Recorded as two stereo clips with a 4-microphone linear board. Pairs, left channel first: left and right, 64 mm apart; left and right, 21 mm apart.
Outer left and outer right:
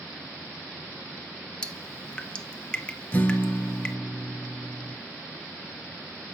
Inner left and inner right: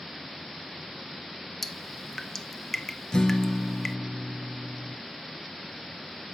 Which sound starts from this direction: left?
A guitar, at 3.1 s.